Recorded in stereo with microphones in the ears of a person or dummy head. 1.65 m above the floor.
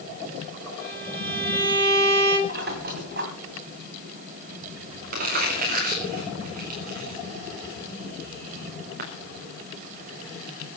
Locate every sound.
0.8 s a violin: 55° right (ahead or behind), 5.5 m
2.5 s a squeak: 40° right (ahead or behind), 2 m
5.1 s crumpling: 45° right (ahead or behind), 4.5 m